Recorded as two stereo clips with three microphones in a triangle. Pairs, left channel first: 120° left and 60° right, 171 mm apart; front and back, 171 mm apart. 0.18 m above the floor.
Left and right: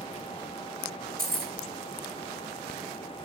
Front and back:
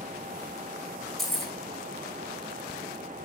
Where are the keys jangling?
90° right, 4 m.